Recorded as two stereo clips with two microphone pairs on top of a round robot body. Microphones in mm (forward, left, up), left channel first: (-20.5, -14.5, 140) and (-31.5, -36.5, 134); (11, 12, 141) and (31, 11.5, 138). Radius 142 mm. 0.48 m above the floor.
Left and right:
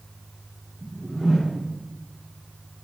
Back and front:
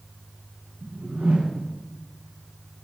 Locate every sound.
0.8 s a whoosh: 5° right, 1.4 m